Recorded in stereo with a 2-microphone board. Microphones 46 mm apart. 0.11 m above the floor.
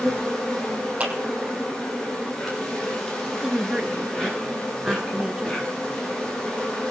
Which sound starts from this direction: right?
A clap, at 1.0 s.